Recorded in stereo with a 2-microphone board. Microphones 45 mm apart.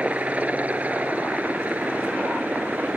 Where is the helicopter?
30° right (ahead or behind); by 3.0 s 35° right (ahead or behind).